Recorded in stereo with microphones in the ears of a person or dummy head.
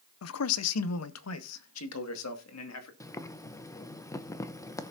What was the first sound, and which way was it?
A man speaking, 75° left (ahead or behind).